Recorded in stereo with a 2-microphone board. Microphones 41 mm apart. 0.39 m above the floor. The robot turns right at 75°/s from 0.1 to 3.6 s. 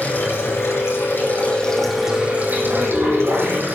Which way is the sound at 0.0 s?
45° left.